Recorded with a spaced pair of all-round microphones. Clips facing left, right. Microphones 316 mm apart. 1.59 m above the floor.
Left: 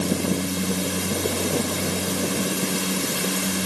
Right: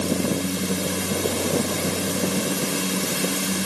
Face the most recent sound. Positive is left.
No sound to turn to.